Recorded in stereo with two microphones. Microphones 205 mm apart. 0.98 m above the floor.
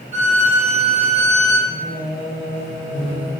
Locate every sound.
0.1 s a violin: 30° right (ahead or behind), 1.1 m
1.7 s singing: 40° left (ahead or behind), 1.4 m